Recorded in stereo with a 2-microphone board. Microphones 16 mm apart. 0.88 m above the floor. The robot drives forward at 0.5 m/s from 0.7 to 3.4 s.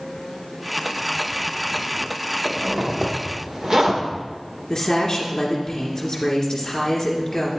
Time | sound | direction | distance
2.5 | a zipper | 35° right (ahead or behind) | 1.3 m
4.7 | a woman speaking | 40° left (ahead or behind) | 2.5 m